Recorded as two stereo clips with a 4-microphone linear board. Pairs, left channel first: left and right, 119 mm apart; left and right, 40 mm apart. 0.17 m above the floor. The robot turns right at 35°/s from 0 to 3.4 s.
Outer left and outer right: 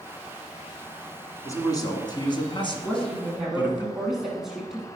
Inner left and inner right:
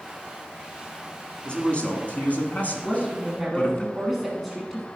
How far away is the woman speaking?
About 1.2 m.